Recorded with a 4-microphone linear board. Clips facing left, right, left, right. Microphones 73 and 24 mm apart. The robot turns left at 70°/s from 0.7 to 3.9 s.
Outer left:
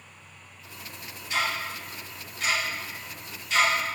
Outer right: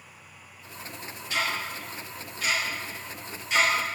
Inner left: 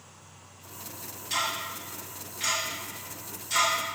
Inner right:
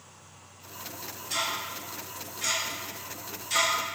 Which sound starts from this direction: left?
Ticking, at 1.3 s.